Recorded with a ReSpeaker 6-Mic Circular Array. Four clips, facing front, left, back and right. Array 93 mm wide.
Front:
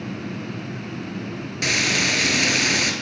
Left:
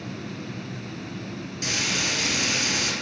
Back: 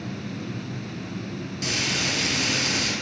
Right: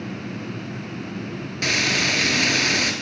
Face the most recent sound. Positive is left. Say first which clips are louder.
# right 6 dB, front 6 dB
turn(degrees=-50)